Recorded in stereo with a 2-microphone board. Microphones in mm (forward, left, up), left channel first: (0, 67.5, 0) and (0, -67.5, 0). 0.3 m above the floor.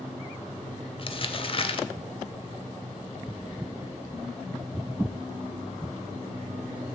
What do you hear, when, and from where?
1.0 s crumpling: 40° left (ahead or behind), 0.7 m